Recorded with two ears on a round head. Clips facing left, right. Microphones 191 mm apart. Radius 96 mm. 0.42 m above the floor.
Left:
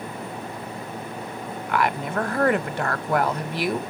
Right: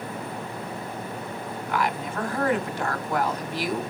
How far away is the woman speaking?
About 1.1 m.